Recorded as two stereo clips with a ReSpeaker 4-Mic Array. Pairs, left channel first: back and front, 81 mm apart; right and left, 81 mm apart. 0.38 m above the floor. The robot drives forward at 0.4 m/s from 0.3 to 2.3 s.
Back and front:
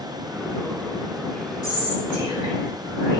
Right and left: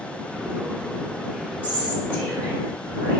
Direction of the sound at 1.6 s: 155° right.